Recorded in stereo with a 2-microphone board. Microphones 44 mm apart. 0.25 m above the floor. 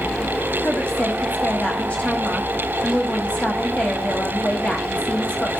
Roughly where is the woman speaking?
Left.